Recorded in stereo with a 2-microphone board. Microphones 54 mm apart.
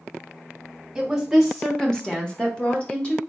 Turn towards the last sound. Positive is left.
turn(degrees=20)  # may be behind; listen again after turning